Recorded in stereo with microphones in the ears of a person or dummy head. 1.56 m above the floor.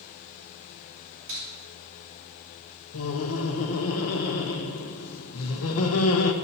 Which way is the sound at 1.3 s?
45° right (ahead or behind).